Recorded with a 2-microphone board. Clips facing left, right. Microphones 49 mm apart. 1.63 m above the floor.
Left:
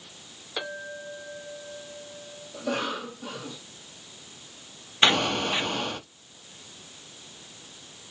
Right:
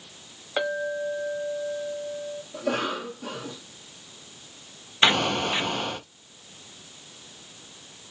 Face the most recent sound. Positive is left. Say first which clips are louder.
# right 1 dB
turn(degrees=-5)  # may be behind; listen again after turning